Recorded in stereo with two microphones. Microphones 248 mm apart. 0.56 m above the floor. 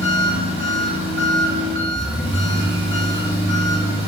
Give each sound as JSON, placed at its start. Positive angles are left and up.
{"t": 0.0, "sound": "an engine running", "side_deg": 20, "distance_m": 0.7}